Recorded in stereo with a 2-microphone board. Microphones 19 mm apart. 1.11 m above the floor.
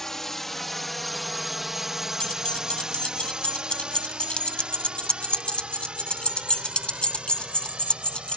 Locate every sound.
0.0 s a drone: 20° left (ahead or behind); by 8.4 s 75° right (ahead or behind)
2.2 s keys jangling: 75° left (ahead or behind)